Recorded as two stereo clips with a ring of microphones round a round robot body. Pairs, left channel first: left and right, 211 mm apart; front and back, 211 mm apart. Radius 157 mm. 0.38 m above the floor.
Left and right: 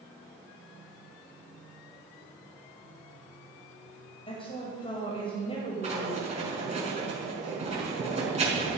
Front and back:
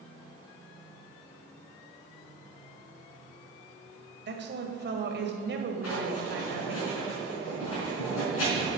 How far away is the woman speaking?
About 2 m.